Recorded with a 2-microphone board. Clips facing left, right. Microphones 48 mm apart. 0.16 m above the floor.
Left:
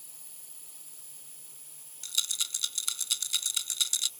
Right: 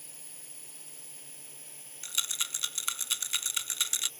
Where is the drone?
55° right (ahead or behind); by 4.2 s 50° right (ahead or behind).